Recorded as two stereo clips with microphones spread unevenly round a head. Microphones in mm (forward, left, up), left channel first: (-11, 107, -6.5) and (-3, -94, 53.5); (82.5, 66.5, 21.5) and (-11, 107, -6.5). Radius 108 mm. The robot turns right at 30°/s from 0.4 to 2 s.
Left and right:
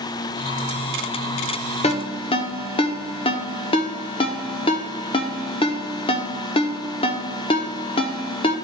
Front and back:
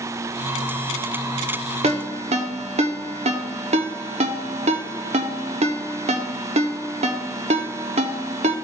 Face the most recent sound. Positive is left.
turn(degrees=165)